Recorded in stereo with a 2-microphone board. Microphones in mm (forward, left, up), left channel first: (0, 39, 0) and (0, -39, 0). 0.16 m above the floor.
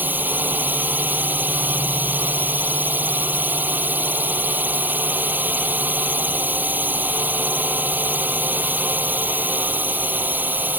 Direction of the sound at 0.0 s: 25° right (ahead or behind).